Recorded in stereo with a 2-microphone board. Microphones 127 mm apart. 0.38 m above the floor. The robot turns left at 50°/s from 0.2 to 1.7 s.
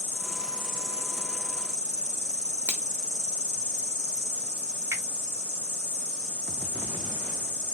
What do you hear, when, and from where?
0.0 s an insect: 20° right, 1.4 m; by 7.7 s 95° right, 1.4 m
2.7 s a finger snap: 15° left (ahead or behind), 0.9 m
4.9 s a finger snap: 25° right (ahead or behind), 1.3 m